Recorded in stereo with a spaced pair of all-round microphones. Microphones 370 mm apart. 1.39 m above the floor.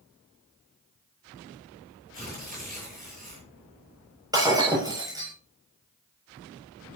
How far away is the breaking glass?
About 9 m.